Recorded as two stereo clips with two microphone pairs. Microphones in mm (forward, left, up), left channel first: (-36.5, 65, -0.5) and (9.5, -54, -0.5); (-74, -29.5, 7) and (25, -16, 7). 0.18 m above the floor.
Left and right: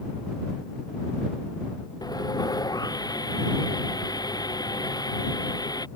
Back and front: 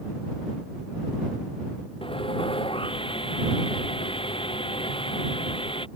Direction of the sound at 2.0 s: 170° left.